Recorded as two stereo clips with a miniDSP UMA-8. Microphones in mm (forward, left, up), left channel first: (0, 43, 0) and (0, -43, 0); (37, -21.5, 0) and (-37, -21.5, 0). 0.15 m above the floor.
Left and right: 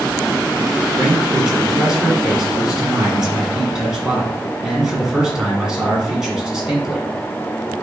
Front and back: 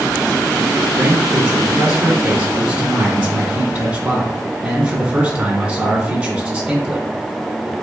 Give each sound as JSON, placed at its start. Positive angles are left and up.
{"t": 1.0, "sound": "a man speaking", "azimuth_deg": -155, "distance_m": 1.6}